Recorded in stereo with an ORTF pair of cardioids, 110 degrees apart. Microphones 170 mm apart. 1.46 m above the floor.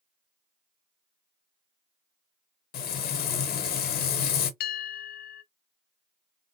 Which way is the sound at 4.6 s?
60° left.